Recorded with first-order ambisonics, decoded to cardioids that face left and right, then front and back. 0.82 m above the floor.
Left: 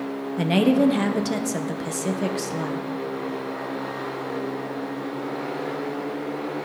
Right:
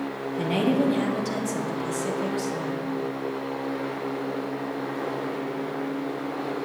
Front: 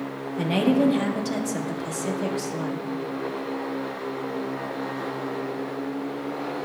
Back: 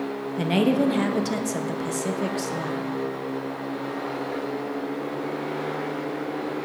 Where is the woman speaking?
110° left, 0.5 m.